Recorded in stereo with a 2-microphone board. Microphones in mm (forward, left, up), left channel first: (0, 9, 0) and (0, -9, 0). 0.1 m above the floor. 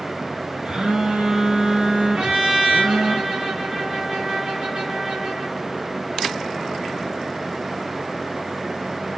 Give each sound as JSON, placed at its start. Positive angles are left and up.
{"t": 0.7, "sound": "a phone buzzing", "side_deg": -50, "distance_m": 3.5}
{"t": 2.1, "sound": "a trumpet", "side_deg": -75, "distance_m": 4.0}